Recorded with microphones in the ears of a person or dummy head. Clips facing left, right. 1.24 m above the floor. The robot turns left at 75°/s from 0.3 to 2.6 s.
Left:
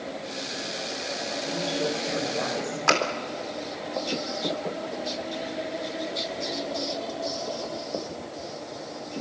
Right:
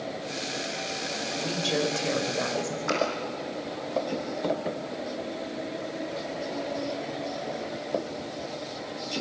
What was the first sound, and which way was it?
A woman speaking, 70° right.